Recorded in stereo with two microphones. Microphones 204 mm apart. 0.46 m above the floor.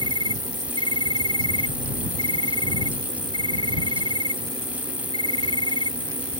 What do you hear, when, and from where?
0.0 s an insect: 20° right (ahead or behind)